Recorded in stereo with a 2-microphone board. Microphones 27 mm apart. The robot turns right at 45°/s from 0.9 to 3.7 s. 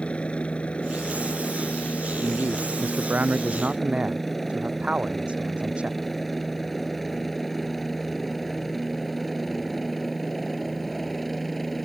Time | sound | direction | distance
0.0 | a helicopter | 40° left (ahead or behind) | ?
2.2 | a man speaking | 105° right | ?